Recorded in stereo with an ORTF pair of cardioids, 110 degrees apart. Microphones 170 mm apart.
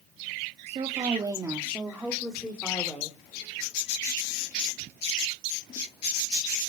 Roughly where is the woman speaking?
Ahead right.